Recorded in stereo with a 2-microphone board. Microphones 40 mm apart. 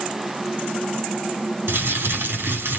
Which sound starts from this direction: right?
Crumpling, at 1.7 s.